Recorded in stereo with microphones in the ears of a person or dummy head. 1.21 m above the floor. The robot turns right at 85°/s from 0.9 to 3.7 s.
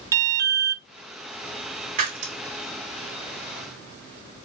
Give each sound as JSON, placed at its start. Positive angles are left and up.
{"t": 0.1, "sound": "an alarm", "side_deg": -15, "distance_m": 0.6}
{"t": 2.0, "sound": "breaking glass", "side_deg": -45, "distance_m": 1.7}